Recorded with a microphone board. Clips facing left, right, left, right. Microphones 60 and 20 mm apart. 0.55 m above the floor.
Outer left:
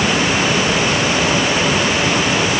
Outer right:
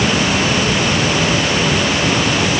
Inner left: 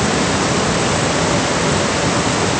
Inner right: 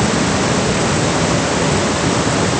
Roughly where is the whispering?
I don't hear whispering.